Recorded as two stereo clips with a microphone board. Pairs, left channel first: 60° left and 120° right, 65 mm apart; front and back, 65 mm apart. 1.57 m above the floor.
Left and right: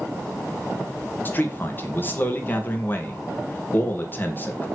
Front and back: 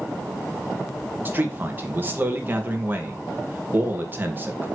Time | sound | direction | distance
1.2 | a man speaking | 120° left | 1.9 m